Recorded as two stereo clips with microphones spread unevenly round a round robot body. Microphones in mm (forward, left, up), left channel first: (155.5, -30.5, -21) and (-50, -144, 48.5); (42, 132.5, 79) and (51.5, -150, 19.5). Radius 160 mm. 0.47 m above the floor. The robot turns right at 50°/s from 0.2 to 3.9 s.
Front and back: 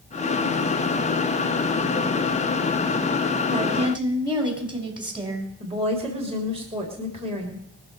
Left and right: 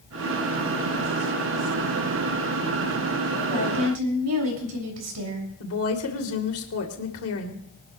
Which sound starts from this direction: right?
A woman speaking, at 3.5 s.